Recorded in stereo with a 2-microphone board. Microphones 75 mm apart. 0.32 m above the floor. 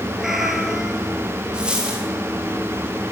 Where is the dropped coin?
10° right (ahead or behind), 5 m.